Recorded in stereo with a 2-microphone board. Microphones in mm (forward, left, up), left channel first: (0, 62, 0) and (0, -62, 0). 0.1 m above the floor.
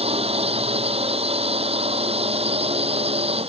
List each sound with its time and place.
0.0 s a drone: 55° right (ahead or behind)